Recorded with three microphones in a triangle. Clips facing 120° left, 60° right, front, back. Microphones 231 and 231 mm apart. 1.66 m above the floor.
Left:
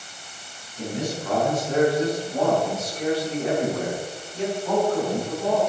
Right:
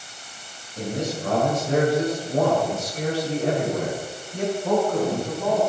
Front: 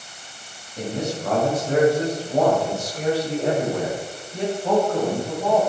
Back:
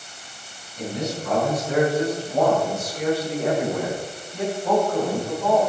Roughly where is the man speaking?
Ahead right.